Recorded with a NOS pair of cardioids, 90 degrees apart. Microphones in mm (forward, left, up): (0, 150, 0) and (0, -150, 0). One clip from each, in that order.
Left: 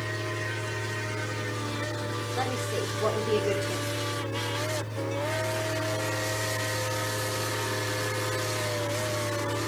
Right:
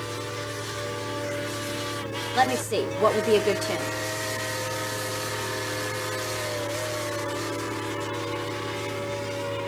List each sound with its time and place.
0.0 s a fan: 10° left, 5.5 m
2.4 s a woman speaking: 55° right, 2.5 m